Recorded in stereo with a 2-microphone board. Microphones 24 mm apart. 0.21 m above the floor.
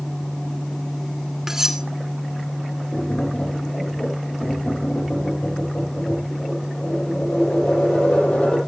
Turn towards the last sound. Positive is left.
turn(degrees=80)